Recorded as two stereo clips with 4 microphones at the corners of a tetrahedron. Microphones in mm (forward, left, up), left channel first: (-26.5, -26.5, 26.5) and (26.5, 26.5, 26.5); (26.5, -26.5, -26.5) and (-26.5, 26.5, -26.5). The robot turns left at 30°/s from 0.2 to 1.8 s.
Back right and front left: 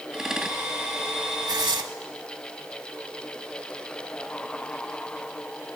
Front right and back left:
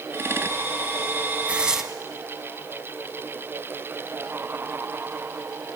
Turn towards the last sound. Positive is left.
turn(degrees=50)